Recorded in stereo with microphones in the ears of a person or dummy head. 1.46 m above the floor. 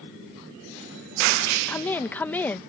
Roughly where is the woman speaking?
Centre.